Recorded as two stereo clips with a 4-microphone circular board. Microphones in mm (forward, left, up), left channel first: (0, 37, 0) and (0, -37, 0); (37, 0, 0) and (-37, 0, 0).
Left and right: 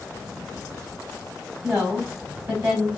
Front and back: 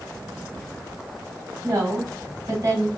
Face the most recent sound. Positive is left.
turn(degrees=-145)